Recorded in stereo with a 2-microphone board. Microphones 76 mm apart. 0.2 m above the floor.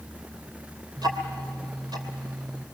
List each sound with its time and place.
1.0 s ticking: 70° right (ahead or behind), 3 m